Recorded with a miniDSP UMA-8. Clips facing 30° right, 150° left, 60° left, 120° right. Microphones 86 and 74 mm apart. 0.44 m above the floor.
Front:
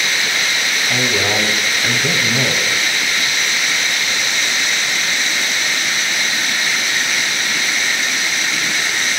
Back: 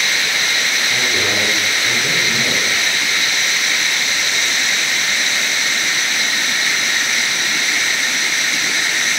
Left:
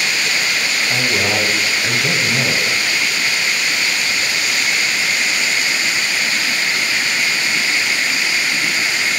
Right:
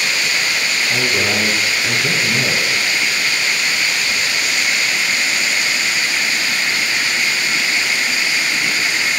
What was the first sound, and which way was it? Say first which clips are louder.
A man speaking: front 4 dB, even; 5° left.